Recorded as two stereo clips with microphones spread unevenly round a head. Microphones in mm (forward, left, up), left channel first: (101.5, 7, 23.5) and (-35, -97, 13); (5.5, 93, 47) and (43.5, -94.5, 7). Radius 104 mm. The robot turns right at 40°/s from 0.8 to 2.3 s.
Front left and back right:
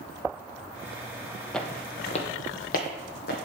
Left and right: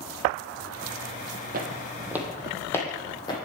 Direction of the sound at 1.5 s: 40° right.